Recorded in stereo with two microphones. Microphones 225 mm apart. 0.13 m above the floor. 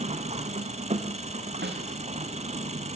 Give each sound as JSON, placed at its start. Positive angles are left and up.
{"t": 0.0, "sound": "an engine running", "side_deg": -30, "distance_m": 2.0}
{"t": 1.6, "sound": "a snare drum", "side_deg": -50, "distance_m": 3.5}